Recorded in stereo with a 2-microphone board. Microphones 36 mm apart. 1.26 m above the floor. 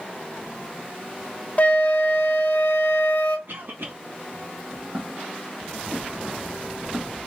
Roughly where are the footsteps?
Right.